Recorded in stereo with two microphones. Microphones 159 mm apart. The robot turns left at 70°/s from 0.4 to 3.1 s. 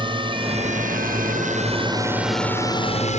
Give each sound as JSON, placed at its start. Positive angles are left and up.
{"t": 0.0, "sound": "a drone", "side_deg": -35}